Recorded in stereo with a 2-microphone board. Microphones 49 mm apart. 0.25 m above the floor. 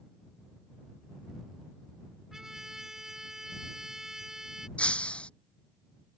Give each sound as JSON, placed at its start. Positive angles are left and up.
{"t": 2.3, "sound": "a trumpet", "side_deg": -10}
{"t": 4.8, "sound": "breaking glass", "side_deg": 25}